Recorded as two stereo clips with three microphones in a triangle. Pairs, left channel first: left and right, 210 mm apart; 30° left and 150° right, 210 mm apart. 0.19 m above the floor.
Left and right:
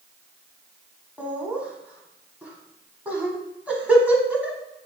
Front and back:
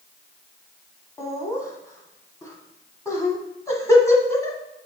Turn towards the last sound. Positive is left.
turn(degrees=-20)